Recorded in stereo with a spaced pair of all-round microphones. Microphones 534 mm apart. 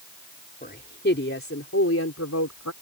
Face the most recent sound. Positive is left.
turn(degrees=30)  # may be behind; listen again after turning